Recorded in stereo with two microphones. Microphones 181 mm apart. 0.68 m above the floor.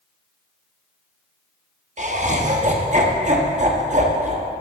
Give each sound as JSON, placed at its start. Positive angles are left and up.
{"t": 2.0, "sound": "laughter", "side_deg": -40, "distance_m": 1.1}